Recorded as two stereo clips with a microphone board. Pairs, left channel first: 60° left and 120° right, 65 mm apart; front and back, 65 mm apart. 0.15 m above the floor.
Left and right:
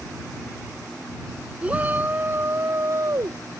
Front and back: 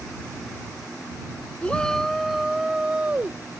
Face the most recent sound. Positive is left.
turn(degrees=-125)